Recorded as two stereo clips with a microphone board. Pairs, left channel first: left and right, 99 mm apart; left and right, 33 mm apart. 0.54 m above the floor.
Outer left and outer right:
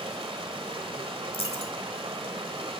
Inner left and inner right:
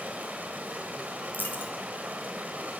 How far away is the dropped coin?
About 1.3 m.